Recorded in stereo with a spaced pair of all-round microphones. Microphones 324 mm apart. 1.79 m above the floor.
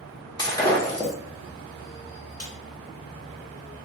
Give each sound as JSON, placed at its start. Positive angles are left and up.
{"t": 0.4, "sound": "breaking glass", "side_deg": 10, "distance_m": 1.0}
{"t": 2.4, "sound": "a snare drum", "side_deg": 50, "distance_m": 1.1}